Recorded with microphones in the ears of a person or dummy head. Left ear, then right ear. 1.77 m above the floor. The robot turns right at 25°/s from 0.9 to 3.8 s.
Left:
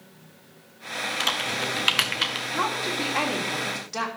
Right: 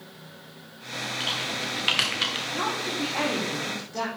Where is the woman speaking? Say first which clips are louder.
Left 2 dB; 70° left, 2.5 m; by 4.1 s 100° left, 2.5 m.